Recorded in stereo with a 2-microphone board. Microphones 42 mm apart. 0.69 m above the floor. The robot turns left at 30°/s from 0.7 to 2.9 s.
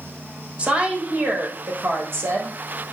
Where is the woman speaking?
30° right, 3.5 m; by 2.6 s 85° right, 3.5 m.